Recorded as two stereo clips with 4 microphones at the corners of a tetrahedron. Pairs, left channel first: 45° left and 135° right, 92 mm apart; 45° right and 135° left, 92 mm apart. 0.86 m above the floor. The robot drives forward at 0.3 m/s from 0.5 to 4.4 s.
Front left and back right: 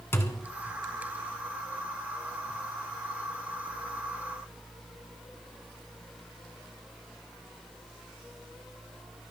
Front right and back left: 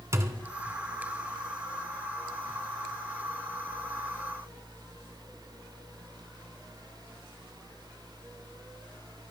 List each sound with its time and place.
0.1 s a thud: 95° left, 1.0 m